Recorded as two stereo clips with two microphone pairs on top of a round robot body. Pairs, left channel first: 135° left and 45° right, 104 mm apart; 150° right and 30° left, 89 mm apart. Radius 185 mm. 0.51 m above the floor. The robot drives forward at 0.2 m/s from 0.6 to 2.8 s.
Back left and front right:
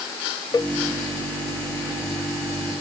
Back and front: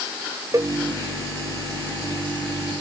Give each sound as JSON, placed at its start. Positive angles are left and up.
{"t": 0.5, "sound": "a cowbell", "azimuth_deg": 80}